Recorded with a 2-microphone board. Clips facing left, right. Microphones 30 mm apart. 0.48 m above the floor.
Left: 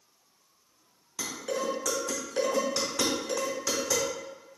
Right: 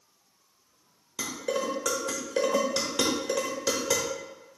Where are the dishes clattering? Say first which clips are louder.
Right 2 dB; 55° right (ahead or behind), 1.1 m.